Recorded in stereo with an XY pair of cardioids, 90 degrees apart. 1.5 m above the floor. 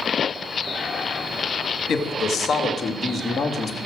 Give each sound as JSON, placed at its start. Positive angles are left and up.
{"t": 1.9, "sound": "a man speaking", "azimuth_deg": 65, "distance_m": 2.0}